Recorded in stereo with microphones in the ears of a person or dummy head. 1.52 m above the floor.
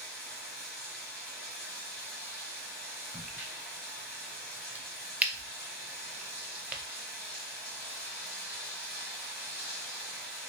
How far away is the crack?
About 0.6 m.